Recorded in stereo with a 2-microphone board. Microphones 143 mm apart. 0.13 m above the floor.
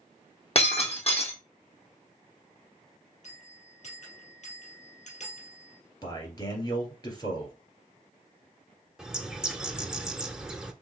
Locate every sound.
0.6 s breaking glass: 45° left (ahead or behind), 1.8 m
3.2 s a bell: 55° left (ahead or behind), 2.5 m
6.0 s a man speaking: 30° left (ahead or behind), 1.8 m
9.0 s a bird: 5° right (ahead or behind), 0.6 m